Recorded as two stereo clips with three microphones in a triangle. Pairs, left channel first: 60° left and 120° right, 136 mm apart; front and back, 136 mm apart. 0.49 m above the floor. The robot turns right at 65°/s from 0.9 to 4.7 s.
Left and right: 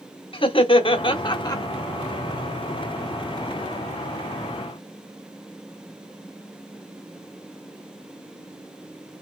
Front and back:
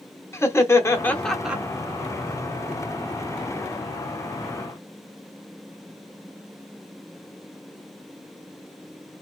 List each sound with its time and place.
0.3 s laughter: 60° left, 1.0 m; by 1.6 s 105° left, 1.0 m